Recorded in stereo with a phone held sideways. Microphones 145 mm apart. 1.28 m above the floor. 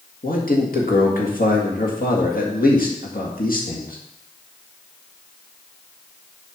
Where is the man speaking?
80° left, 2.0 m.